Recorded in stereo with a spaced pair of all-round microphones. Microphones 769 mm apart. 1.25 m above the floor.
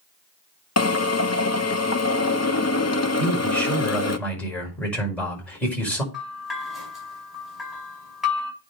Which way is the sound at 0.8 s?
20° left (ahead or behind).